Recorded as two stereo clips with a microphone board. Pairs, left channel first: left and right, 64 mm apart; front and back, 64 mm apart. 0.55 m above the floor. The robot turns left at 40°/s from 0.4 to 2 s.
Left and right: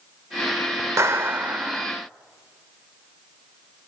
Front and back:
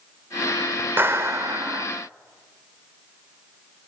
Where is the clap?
130° right, 1.3 m; by 1.9 s 165° right, 1.3 m.